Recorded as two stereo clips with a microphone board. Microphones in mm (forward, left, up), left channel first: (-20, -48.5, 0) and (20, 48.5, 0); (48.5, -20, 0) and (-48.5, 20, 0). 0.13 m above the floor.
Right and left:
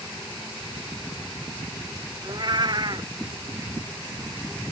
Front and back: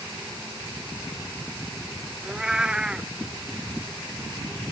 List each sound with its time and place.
2.2 s a cat meowing: 80° left